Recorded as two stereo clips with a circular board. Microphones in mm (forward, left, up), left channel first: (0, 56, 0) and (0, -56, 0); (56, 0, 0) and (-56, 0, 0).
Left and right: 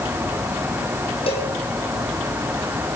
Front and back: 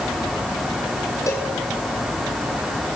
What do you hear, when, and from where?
1.3 s a cowbell: 60° left, 6.5 m